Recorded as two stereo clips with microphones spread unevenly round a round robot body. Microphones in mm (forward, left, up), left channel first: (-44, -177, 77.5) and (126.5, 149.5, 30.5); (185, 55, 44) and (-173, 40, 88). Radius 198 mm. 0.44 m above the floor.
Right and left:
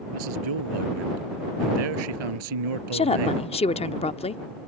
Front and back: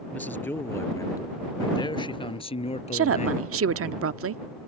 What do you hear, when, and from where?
0.1 s a man speaking: 90° left; by 3.9 s 70° left
2.9 s a woman speaking: 170° left